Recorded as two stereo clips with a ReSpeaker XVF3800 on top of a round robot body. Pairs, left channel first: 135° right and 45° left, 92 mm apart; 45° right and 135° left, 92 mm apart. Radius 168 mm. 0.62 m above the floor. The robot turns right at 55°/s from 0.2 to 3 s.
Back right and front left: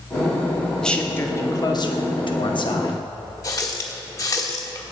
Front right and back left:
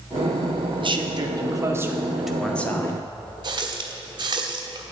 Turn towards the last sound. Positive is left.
turn(degrees=175)